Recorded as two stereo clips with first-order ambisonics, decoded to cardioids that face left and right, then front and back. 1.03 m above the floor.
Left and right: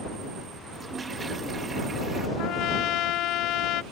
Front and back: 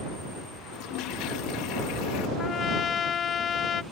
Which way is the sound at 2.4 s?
60° left.